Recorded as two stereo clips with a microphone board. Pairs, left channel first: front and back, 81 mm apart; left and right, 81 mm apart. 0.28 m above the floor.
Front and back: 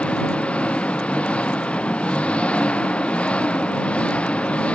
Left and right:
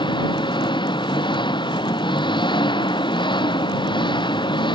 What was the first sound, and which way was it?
An engine running, 75° left.